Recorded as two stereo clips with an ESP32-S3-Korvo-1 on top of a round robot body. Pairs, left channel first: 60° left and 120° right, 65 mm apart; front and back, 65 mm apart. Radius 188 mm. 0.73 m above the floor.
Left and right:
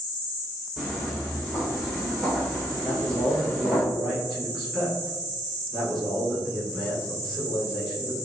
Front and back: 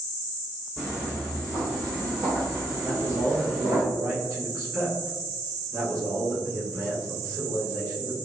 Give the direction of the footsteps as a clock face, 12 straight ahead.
12 o'clock.